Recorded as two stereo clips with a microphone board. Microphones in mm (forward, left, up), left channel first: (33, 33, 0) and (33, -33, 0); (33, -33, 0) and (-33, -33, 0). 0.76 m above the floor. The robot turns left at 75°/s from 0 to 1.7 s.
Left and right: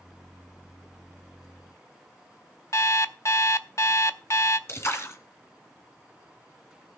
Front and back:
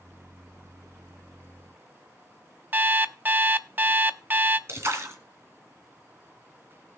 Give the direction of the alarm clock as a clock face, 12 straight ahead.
8 o'clock.